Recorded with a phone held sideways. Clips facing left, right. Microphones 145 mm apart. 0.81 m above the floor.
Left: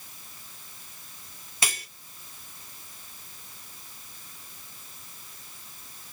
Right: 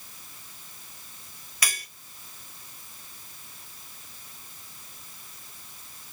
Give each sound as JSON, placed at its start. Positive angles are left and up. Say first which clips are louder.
{"t": 1.6, "sound": "cutlery clinking", "louder": "left 2 dB", "side_deg": 25, "distance_m": 0.9}